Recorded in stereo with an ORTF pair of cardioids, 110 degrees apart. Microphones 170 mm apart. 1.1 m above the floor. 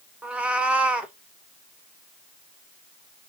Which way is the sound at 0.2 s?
10° right.